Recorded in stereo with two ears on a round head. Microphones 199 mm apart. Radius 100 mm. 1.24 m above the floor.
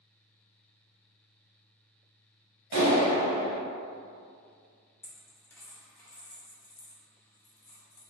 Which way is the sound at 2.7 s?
50° right (ahead or behind).